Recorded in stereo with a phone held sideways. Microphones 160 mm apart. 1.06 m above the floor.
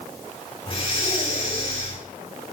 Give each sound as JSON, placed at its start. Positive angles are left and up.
{"t": 0.7, "sound": "breathing", "side_deg": 35, "distance_m": 7.5}